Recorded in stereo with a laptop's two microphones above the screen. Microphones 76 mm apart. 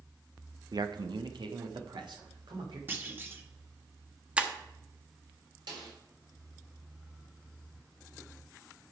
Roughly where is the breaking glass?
Centre.